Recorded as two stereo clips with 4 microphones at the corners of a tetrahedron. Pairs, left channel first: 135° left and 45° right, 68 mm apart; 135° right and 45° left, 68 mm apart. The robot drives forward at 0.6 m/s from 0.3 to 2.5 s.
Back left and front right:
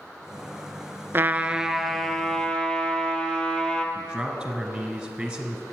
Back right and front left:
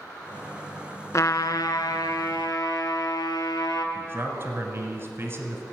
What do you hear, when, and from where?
1.1 s a trumpet: 95° right, 0.5 m; by 3.9 s 150° right, 1.0 m
4.0 s a man speaking: 35° left, 1.5 m